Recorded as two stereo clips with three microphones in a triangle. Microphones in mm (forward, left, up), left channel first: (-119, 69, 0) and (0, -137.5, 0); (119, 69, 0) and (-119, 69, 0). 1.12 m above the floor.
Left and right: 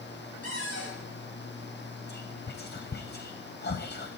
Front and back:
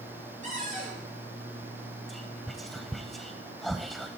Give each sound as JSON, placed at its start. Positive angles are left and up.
{"t": 0.4, "sound": "a cupboard door", "azimuth_deg": 120, "distance_m": 10.0}
{"t": 2.1, "sound": "whispering", "azimuth_deg": 90, "distance_m": 0.6}